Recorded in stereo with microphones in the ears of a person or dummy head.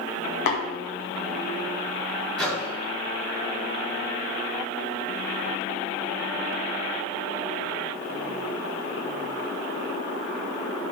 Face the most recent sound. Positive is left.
turn(degrees=5)  # may be behind; listen again after turning